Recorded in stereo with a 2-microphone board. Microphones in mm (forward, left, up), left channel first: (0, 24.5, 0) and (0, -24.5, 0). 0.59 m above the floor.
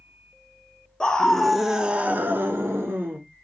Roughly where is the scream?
Centre.